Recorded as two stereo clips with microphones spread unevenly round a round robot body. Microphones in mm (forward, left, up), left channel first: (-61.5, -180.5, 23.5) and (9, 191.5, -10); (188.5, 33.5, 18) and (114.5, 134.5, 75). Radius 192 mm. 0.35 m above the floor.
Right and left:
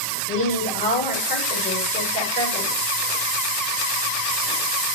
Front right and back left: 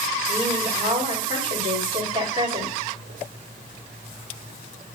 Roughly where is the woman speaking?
Behind.